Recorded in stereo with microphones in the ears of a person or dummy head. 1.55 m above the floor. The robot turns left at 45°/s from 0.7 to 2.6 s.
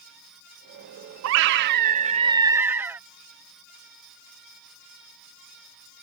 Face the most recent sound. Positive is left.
turn(degrees=-170)